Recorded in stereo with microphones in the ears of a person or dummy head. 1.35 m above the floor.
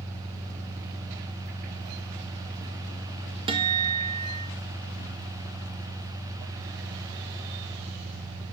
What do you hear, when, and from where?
0.0 s an engine running: 35° right (ahead or behind), 1.3 m
3.5 s a guitar: 25° right (ahead or behind), 0.7 m